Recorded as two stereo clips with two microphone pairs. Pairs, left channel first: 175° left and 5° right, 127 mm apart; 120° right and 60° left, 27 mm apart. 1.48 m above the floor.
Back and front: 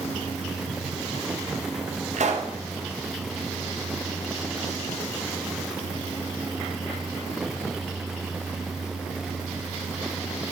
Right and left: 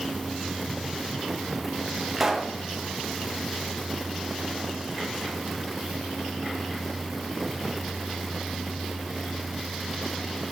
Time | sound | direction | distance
2.1 | a pop | 25° right | 0.7 m